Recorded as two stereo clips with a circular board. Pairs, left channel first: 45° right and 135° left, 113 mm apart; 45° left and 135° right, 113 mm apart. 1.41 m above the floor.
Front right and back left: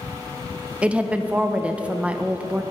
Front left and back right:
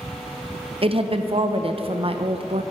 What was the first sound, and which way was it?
A woman speaking, 145° right.